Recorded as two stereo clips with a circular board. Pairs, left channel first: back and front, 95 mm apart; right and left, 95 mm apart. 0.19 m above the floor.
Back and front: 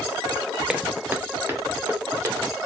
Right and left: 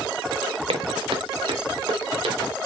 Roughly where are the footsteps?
Left.